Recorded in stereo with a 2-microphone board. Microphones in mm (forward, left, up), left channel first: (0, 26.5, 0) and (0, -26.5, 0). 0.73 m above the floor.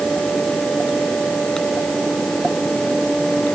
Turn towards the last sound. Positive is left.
No sound to turn to.